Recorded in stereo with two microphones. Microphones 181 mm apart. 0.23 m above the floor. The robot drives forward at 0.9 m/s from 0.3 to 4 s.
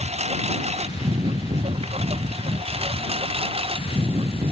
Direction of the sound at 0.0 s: 35° right (ahead or behind).